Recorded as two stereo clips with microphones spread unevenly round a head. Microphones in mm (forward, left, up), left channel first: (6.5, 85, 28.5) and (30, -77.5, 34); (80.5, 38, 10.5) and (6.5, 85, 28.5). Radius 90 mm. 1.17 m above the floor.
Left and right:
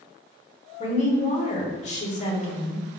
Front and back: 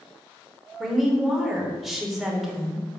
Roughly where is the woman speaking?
Ahead left.